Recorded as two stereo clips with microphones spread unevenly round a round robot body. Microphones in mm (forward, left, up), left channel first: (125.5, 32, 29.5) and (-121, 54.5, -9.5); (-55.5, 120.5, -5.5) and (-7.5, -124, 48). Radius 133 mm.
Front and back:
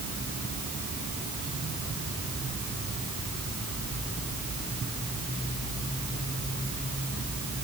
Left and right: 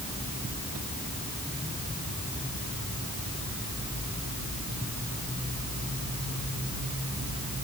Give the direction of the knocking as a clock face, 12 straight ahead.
I don't hear knocking.